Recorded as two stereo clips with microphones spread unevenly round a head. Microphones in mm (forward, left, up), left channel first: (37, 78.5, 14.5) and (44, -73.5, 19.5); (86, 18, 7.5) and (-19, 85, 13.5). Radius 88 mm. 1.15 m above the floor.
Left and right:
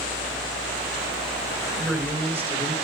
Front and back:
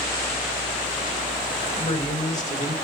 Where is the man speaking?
5° right, 5 m; by 2.7 s 15° right, 5.5 m.